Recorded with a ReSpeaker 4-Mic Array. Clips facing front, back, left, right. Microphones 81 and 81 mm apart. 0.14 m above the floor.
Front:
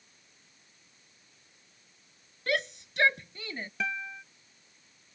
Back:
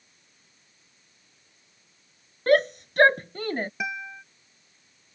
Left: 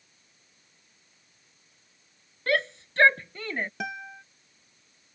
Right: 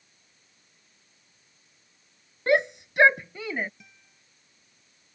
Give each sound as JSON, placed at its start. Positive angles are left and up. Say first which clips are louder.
{"t": 2.5, "sound": "a shout", "louder": "back 11 dB, right 4 dB", "azimuth_deg": -155}
{"t": 3.8, "sound": "a guitar", "louder": "back 2 dB, left 23 dB", "azimuth_deg": 105}